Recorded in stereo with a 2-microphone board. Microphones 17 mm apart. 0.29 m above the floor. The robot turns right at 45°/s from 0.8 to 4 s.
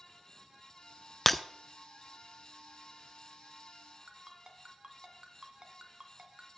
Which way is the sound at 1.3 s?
10° left (ahead or behind).